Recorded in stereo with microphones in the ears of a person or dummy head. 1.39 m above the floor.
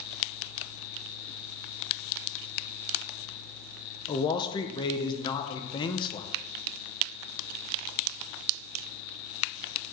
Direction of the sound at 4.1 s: 25° left (ahead or behind).